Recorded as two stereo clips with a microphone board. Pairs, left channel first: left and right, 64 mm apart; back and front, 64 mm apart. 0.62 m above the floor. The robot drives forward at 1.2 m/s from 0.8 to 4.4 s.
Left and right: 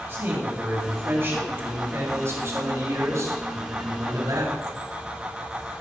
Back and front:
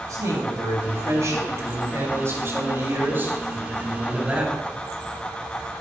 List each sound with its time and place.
0.1 s a man speaking: 35° right, 7 m; by 4.6 s 70° right, 4 m